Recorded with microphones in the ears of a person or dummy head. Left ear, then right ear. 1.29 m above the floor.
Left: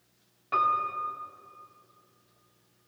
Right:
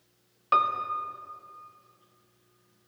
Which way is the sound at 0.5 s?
50° right (ahead or behind).